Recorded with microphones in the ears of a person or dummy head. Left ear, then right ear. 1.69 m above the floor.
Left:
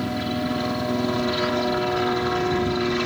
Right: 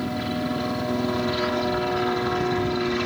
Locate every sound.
0.0 s a helicopter: centre (ahead or behind)